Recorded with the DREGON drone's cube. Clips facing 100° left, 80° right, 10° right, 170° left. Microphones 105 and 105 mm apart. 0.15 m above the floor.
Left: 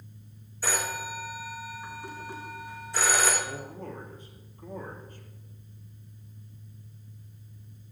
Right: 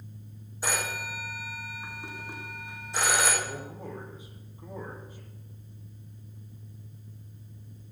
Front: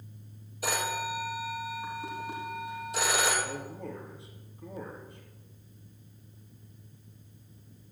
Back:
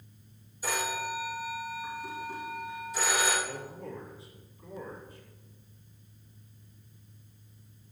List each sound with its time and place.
0.6 s a phone ringing: 10° right, 3 m
3.4 s a man speaking: straight ahead, 3 m